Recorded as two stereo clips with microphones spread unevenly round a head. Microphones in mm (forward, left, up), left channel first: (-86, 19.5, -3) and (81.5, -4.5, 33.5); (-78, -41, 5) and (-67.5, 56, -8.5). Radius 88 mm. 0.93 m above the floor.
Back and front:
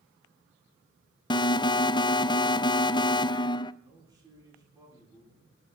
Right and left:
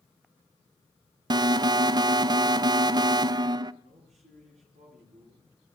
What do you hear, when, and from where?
1.3 s an alarm: 115° left, 0.6 m
3.8 s a man speaking: 60° left, 9 m